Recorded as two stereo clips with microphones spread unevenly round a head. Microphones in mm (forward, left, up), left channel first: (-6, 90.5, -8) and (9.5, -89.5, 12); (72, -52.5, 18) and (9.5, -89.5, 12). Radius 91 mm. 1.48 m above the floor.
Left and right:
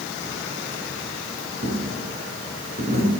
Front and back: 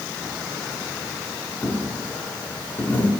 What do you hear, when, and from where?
1.6 s a dropped coin: 35° right, 6.5 m